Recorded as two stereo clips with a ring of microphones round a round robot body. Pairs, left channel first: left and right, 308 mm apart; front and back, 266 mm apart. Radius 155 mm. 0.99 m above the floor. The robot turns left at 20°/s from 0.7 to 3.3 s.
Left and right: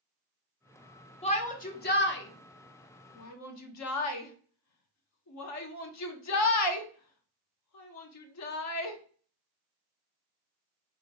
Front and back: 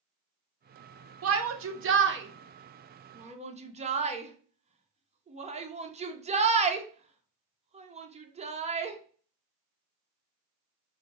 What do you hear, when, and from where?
1.2 s a shout: 160° left, 0.7 m; by 9.0 s 115° left, 0.7 m